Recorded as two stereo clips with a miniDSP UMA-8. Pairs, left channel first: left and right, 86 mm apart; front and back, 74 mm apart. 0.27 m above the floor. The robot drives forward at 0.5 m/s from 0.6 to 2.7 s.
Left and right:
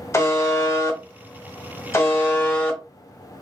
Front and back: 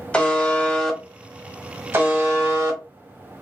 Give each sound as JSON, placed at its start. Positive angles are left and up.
{"t": 0.1, "sound": "a buzzer", "azimuth_deg": 65, "distance_m": 0.8}